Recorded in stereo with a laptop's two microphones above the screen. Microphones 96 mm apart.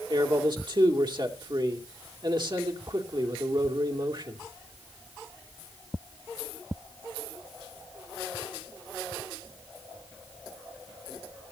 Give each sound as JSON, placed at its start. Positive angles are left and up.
{"t": 0.1, "sound": "a man speaking", "side_deg": -50, "distance_m": 2.5}